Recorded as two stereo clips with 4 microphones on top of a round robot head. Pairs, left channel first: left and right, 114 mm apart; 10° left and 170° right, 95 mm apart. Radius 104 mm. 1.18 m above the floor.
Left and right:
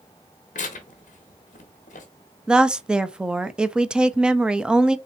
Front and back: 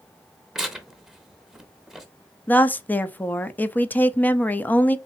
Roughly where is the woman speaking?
Ahead right.